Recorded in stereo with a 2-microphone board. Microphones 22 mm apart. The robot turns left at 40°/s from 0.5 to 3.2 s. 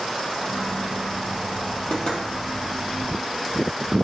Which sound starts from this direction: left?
Knocking, at 1.9 s.